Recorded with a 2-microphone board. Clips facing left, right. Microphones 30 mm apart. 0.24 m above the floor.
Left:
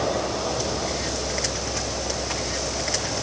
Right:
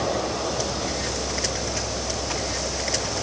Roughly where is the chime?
I don't hear a chime.